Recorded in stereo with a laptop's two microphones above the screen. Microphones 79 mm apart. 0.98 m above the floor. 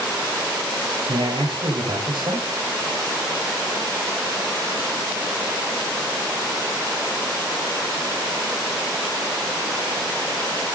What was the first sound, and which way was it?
A man speaking, 85° right.